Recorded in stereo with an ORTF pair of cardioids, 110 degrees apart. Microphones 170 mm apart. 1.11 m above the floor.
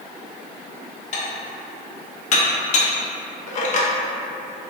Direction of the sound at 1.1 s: 45° left.